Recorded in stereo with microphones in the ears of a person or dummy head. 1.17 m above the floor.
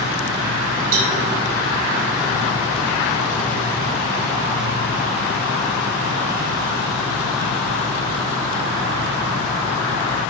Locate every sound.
0.9 s a cowbell: 50° right (ahead or behind), 2.5 m